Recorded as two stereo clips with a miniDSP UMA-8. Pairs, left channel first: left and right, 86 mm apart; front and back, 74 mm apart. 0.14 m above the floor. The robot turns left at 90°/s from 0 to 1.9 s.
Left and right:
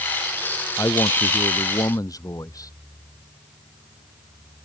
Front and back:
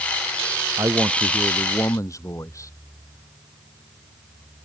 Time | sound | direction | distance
0.8 | a man speaking | 145° left | ?